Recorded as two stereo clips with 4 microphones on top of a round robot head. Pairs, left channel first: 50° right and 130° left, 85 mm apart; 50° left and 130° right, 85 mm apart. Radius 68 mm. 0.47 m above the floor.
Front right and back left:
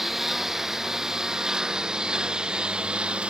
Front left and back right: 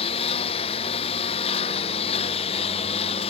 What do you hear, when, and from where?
0.0 s a lawn mower: 40° left; by 3.3 s 50° left